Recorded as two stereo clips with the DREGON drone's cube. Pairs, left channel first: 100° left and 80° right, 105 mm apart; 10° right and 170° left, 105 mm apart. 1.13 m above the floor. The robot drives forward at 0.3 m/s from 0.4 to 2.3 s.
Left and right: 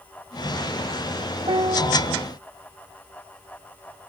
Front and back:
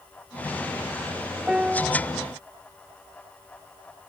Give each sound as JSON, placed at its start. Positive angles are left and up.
{"t": 1.5, "sound": "a piano", "azimuth_deg": -110}